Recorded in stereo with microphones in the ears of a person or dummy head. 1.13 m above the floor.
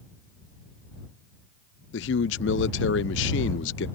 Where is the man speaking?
65° left (ahead or behind).